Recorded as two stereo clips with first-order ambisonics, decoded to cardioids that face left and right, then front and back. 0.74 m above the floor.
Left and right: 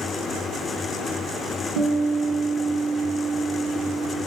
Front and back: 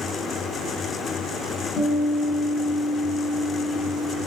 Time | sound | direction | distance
1.8 | a guitar | 65° right | 1.2 m